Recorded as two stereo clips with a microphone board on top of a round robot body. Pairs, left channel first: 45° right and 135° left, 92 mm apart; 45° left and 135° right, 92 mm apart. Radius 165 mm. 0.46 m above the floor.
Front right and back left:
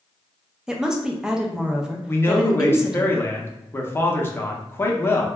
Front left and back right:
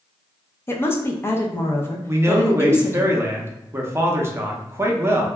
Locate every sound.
0.7 s a woman speaking: 60° left, 0.7 m
2.1 s a man speaking: 95° right, 0.8 m